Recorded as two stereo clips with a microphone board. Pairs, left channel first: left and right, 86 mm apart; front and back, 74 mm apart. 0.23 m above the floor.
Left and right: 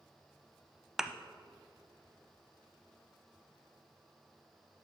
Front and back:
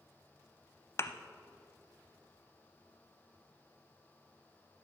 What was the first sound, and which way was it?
A thud, 5° right.